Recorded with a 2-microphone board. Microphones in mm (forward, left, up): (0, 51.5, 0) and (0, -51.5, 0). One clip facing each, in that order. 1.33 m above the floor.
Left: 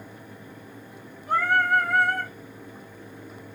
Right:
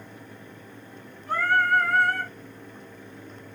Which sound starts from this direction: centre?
Singing, at 1.3 s.